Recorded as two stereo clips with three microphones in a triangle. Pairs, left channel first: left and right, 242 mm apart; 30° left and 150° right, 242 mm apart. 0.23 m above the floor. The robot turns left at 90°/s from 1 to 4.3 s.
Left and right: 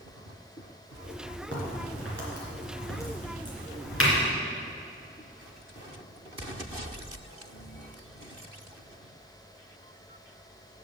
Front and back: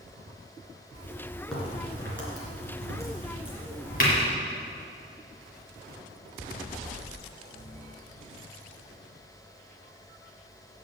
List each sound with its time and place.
1.5 s a crack: 60° right, 3 m; by 4.1 s 65° left, 3 m